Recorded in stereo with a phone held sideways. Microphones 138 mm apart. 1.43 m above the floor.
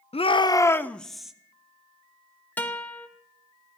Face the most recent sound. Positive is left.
turn(degrees=10)  # may be behind; listen again after turning